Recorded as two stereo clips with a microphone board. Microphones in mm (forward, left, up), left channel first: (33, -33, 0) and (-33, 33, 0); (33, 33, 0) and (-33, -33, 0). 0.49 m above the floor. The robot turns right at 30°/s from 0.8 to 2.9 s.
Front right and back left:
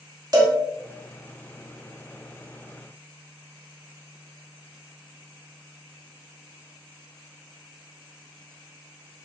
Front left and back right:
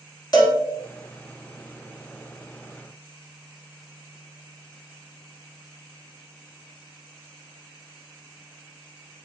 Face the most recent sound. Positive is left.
turn(degrees=150)